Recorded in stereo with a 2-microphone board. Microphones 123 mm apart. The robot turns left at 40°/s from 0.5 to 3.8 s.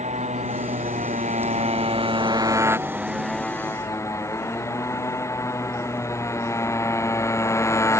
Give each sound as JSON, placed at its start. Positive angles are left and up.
{"t": 0.0, "sound": "a motorcycle", "azimuth_deg": -70}